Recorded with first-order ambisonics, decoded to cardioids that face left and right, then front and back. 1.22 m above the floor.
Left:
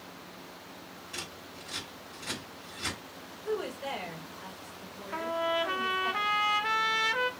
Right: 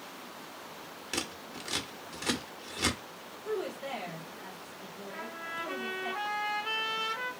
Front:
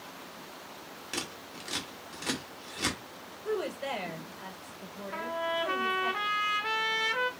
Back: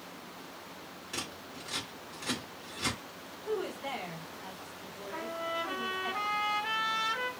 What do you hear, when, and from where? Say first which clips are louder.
1.1 s scissors: right 5 dB, front 2 dB; 60° right, 0.8 m
3.5 s a woman speaking: left 1 dB, front 2 dB; 15° left, 1.2 m
5.1 s a trumpet: left 10 dB, front 4 dB; 70° left, 0.6 m